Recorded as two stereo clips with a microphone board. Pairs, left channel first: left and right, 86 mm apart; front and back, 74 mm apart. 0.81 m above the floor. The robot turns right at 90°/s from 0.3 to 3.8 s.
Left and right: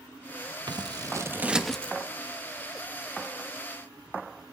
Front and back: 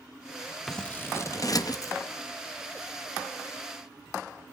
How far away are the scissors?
About 0.6 m.